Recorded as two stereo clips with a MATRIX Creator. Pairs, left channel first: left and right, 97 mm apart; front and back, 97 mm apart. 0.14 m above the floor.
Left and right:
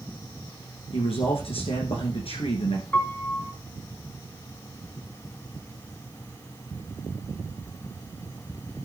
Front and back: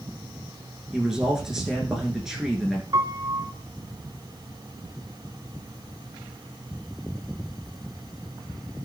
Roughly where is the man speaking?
Left.